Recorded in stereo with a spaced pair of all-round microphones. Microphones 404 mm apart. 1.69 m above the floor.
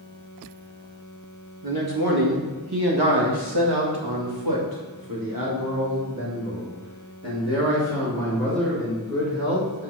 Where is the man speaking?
55° right (ahead or behind), 1.9 m; by 9.9 s 30° right (ahead or behind), 4.5 m.